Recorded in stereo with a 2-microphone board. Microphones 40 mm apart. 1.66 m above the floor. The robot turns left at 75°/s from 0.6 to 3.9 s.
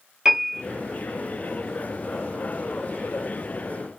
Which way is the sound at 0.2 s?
15° right (ahead or behind).